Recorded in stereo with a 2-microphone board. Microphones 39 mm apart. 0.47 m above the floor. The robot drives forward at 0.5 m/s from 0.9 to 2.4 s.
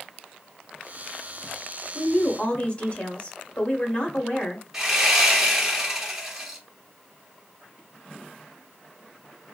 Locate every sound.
1.9 s a woman speaking: 35° left (ahead or behind), 0.9 m
4.7 s sawing: 10° right (ahead or behind), 1.6 m